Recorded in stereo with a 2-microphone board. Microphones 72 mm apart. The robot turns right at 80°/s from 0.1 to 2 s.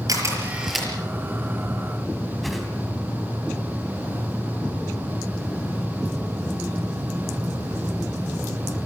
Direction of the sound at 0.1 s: 55° right (ahead or behind).